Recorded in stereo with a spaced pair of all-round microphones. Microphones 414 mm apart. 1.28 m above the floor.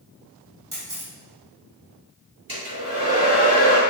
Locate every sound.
0.7 s a camera shutter: 50° right (ahead or behind), 1.8 m
2.5 s a hair dryer: 50° right (ahead or behind), 2 m